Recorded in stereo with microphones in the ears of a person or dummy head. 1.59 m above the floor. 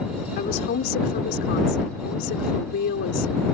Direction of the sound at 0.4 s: 50° left (ahead or behind).